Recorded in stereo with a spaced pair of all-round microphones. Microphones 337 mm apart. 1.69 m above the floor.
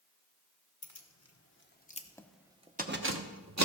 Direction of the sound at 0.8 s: 55° left (ahead or behind).